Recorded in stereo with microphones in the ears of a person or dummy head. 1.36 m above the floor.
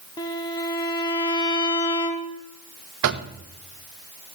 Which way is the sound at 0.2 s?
20° left (ahead or behind).